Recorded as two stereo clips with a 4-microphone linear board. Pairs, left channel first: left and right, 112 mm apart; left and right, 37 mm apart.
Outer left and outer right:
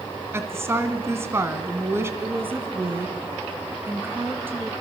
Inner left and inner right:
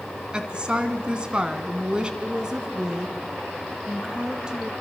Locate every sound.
0.3 s a woman speaking: 25° right (ahead or behind), 2 m
2.2 s a woman speaking: 20° right (ahead or behind), 2.5 m